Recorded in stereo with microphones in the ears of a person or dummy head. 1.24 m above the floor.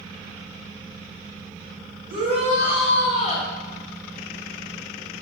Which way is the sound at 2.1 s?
45° right (ahead or behind).